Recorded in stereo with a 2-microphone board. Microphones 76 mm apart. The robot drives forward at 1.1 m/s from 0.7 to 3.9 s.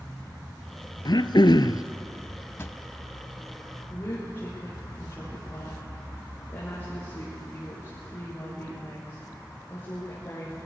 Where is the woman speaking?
30° left (ahead or behind), 10 m.